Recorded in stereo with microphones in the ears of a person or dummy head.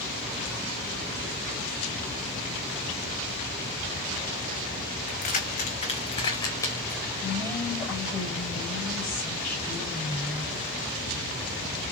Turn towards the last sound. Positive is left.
turn(degrees=15)  # may be behind; listen again after turning